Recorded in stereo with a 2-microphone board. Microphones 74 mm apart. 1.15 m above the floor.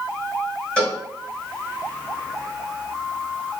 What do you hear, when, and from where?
0.8 s a cowbell: 10° left (ahead or behind), 1.7 m